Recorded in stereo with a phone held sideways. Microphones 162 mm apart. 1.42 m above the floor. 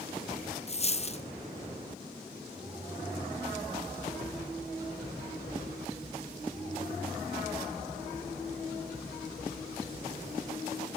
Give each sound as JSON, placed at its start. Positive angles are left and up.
{"t": 0.7, "sound": "a dropped coin", "side_deg": 40, "distance_m": 0.9}